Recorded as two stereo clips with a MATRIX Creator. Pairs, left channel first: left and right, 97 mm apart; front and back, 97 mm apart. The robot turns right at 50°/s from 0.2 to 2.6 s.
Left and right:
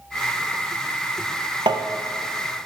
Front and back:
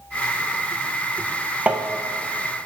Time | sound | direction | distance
1.7 | tapping | 110° right | 0.6 m